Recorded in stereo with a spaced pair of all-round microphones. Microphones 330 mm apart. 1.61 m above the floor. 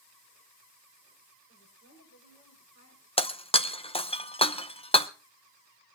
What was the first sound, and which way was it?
A woman speaking, 45° left (ahead or behind).